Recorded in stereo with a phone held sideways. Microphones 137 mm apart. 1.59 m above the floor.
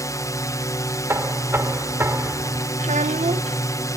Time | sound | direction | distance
0.0 | a drone | 25° left (ahead or behind) | ?
1.1 | knocking | 20° right (ahead or behind) | ?
2.8 | a child speaking | 60° right (ahead or behind) | ?